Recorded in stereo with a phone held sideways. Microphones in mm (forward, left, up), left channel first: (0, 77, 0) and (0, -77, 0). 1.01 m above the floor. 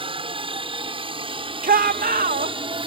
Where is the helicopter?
35° right (ahead or behind).